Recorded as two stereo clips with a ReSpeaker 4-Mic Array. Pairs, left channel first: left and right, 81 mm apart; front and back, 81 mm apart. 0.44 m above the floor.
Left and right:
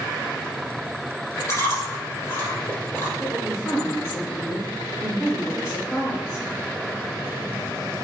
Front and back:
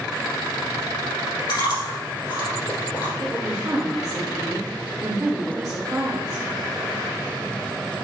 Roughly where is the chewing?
Ahead left.